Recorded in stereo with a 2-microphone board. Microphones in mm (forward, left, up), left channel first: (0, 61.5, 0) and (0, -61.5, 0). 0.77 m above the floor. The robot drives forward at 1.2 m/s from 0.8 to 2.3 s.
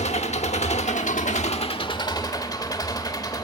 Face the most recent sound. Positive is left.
turn(degrees=30)  # may be behind; listen again after turning